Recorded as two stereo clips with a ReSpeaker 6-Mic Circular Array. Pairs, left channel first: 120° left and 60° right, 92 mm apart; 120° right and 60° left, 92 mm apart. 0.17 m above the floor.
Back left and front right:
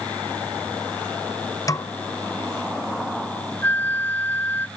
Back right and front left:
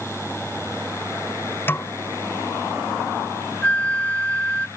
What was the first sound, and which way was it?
A snare drum, 175° left.